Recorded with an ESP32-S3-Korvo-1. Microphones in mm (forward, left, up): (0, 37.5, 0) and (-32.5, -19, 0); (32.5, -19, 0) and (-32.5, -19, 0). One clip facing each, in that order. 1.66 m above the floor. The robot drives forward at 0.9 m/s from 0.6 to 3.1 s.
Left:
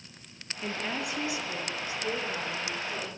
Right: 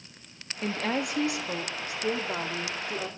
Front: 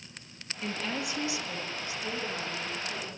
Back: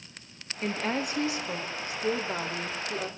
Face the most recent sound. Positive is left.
turn(degrees=-150)